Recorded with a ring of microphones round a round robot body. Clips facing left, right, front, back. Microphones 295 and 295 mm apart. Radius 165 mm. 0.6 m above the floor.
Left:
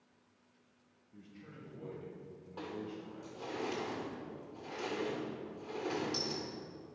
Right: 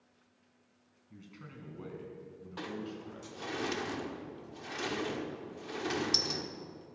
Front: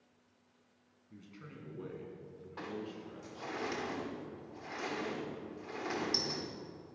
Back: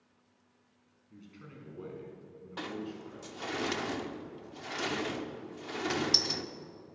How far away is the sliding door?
About 1.1 m.